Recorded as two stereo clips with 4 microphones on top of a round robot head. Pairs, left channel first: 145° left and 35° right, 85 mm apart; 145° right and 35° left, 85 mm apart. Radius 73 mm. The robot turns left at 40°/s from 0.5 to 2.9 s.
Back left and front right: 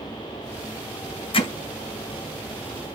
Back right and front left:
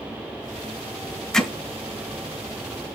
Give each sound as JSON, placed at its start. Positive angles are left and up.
{"t": 1.3, "sound": "hammering", "azimuth_deg": 135, "distance_m": 2.0}